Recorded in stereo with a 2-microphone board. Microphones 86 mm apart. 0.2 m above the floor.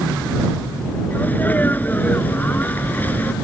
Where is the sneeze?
20° left (ahead or behind).